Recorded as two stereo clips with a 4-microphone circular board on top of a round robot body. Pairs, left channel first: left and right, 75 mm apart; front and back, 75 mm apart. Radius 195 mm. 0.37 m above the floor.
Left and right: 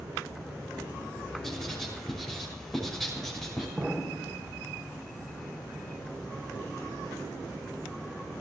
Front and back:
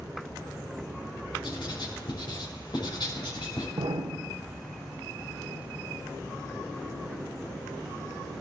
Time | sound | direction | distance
1.4 | writing | straight ahead | 5.5 m
3.8 | an explosion | 165° right | 1.1 m